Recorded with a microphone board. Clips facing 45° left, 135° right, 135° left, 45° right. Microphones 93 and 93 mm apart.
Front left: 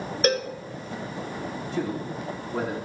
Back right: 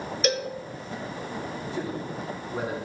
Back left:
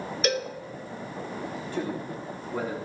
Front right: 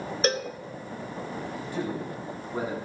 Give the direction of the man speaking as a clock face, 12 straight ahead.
11 o'clock.